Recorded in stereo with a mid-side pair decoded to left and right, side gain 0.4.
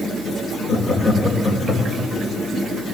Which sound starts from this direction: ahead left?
Laughter, at 0.7 s.